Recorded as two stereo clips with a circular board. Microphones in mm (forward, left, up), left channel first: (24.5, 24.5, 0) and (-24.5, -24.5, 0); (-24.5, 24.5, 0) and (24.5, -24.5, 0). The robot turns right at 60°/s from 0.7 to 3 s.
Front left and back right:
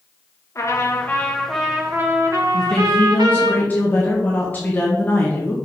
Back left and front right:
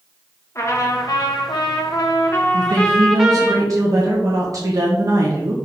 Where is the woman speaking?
45° right, 1.3 m; by 5.6 s 15° right, 1.3 m.